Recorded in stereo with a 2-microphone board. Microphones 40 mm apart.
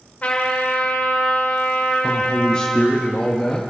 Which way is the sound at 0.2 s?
40° left (ahead or behind).